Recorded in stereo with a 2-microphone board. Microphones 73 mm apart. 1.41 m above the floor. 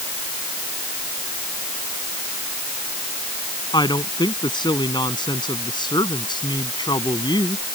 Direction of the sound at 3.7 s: 90° left.